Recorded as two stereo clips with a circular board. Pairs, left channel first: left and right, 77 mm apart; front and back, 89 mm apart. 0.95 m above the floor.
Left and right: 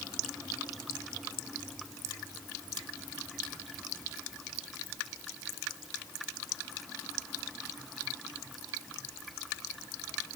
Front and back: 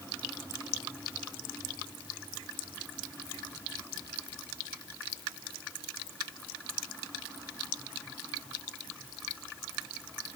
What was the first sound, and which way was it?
Only background noise.